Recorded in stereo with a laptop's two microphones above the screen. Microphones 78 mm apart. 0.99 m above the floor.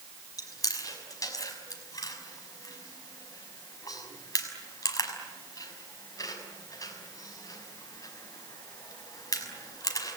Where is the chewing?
55° left (ahead or behind), 5.5 m.